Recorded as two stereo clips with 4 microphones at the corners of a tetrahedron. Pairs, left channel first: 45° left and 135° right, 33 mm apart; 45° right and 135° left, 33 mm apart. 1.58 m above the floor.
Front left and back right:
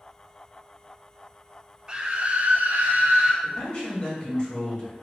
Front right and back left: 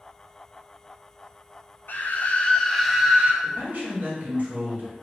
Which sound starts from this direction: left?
A man speaking, at 3.4 s.